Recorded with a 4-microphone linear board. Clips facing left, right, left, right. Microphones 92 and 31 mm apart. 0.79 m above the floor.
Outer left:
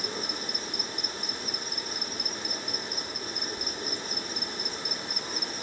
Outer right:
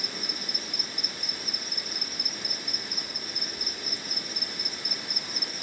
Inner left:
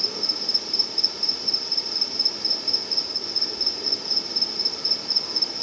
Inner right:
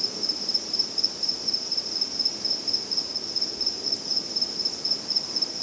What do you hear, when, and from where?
0.0 s an insect: 30° left (ahead or behind), 1.0 m